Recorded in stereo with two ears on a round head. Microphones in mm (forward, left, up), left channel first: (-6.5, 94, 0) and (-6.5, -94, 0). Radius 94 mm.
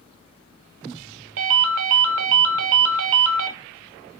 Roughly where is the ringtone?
Right.